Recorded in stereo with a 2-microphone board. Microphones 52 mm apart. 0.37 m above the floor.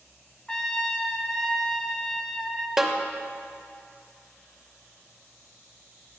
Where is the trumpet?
15° left (ahead or behind), 0.7 m.